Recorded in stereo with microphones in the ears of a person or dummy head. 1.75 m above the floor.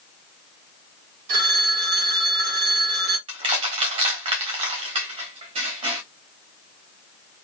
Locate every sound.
1.3 s a phone ringing: 60° right (ahead or behind), 1.8 m
3.3 s crushing: 35° right (ahead or behind), 1.4 m